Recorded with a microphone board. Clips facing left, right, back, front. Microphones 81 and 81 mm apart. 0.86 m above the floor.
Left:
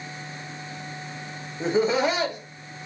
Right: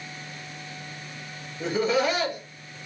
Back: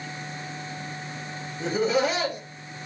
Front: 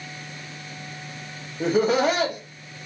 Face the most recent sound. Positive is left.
turn(degrees=25)